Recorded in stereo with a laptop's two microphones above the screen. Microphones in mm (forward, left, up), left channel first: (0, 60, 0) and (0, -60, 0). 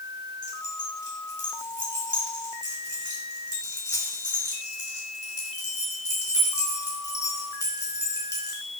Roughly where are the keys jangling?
Left.